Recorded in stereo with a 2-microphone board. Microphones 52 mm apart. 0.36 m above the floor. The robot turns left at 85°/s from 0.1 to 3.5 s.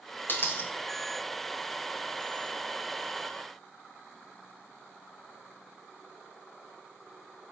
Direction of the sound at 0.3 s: 125° left.